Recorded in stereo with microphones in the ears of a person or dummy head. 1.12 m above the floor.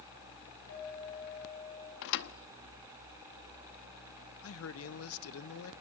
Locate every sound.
0.7 s a clink: 85° left, 6 m
2.0 s a thud: 55° left (ahead or behind), 0.7 m
4.4 s a man speaking: 65° left (ahead or behind), 1.0 m